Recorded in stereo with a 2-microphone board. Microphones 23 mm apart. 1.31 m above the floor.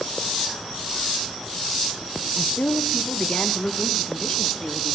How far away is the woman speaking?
About 0.8 m.